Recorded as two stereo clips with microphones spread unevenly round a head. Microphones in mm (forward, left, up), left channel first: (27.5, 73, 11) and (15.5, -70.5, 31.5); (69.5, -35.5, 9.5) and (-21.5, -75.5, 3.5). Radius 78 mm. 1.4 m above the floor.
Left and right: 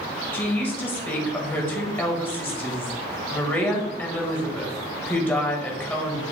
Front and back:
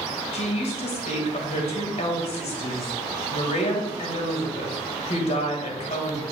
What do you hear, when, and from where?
0.3 s a woman speaking: 10° left, 2 m